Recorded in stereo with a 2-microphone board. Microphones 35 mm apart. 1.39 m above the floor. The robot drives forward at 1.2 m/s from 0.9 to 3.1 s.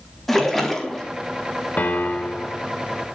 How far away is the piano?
About 2 m.